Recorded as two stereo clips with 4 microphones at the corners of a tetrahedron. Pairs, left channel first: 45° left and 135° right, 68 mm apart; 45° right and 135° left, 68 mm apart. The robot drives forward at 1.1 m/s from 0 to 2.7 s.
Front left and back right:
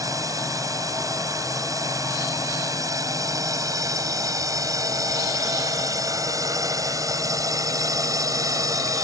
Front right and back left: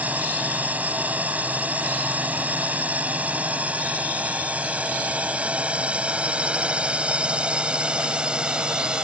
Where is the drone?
160° right; by 9.0 s 150° right.